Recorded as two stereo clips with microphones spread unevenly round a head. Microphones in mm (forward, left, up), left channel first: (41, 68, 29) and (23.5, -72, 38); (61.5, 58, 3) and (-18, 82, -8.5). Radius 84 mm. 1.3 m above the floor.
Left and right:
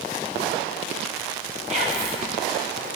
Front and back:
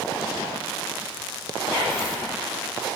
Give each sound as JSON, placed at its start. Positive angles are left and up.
{"t": 1.7, "sound": "whispering", "azimuth_deg": -145, "distance_m": 3.0}